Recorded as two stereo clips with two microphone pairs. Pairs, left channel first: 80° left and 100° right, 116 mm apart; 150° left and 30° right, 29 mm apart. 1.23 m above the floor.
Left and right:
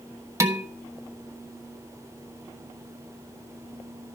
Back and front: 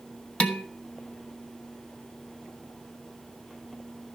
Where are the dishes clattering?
165° right, 1.1 m.